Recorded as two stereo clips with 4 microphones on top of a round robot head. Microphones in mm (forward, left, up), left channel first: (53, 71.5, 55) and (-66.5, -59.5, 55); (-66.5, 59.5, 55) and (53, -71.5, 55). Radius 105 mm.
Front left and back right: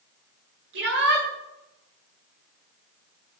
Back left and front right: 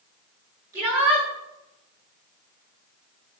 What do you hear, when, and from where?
0.7 s a shout: 120° right, 8.5 m